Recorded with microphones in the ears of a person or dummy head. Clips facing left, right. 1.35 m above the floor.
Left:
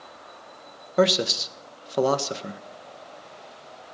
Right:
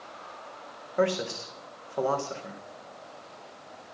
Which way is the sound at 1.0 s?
50° left (ahead or behind).